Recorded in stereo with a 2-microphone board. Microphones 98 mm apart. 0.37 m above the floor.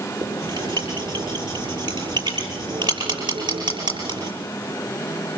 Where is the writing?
55° right (ahead or behind), 6.5 m.